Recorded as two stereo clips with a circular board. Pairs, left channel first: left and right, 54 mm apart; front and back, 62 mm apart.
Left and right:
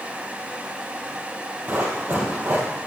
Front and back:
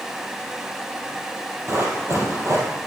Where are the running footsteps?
145° right, 2.5 m.